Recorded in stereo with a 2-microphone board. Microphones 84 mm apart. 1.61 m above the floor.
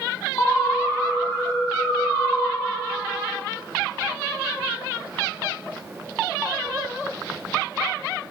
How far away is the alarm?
About 3.5 m.